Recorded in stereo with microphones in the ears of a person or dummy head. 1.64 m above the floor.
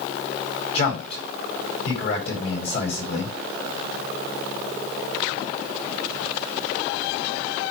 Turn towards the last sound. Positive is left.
turn(degrees=35)  # may be behind; listen again after turning